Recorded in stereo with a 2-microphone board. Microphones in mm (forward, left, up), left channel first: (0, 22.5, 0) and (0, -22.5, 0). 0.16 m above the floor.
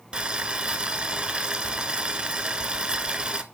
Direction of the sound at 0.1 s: 25° right (ahead or behind).